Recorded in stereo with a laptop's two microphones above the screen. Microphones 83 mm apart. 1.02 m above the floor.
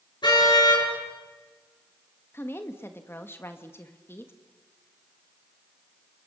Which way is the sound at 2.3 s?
30° left (ahead or behind).